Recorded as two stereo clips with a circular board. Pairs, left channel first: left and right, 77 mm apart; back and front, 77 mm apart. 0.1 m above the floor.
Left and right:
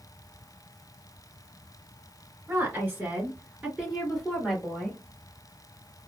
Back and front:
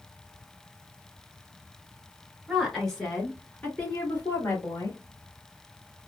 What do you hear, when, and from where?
2.5 s a woman speaking: 90° right, 1.7 m; by 5.0 s 165° left, 2.0 m